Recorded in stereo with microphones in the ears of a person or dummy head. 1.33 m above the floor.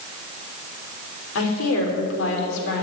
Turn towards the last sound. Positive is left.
turn(degrees=65)  # may be behind; listen again after turning